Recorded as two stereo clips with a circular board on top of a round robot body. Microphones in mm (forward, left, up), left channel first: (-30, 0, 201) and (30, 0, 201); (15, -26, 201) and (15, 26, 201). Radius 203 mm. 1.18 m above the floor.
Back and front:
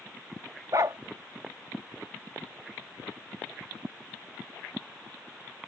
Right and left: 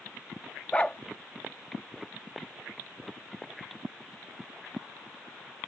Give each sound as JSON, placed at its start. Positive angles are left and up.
{"t": 0.7, "sound": "a dog barking", "azimuth_deg": -25}